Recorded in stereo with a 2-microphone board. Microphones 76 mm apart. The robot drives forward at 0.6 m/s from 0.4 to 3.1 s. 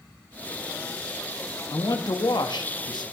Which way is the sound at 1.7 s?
60° left (ahead or behind).